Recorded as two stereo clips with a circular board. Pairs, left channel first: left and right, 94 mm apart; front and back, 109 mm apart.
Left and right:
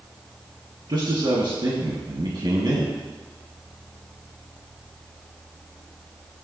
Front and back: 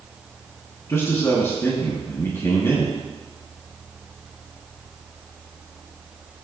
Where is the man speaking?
65° right, 2.5 m.